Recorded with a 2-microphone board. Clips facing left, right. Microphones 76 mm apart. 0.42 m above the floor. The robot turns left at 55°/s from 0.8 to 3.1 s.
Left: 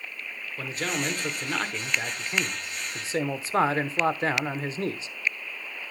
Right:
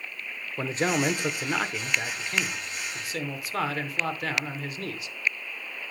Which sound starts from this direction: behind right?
A man speaking, at 0.6 s.